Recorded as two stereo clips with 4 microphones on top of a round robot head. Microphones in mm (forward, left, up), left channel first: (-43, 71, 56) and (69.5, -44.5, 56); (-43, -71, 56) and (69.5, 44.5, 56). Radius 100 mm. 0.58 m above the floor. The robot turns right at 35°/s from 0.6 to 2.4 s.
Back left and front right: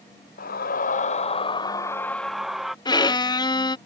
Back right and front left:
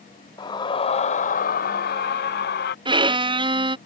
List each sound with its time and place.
0.4 s a scream: 160° left; by 2.8 s 135° right
2.9 s a violin: 85° left